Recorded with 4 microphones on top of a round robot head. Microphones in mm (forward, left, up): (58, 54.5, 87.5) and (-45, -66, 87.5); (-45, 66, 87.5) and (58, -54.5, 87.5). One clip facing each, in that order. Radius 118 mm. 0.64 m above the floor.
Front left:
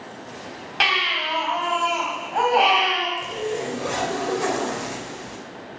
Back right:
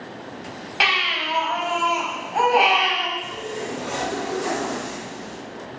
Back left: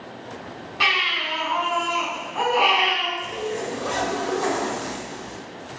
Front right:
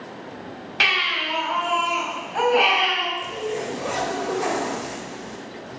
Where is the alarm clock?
No alarm clock in this recording.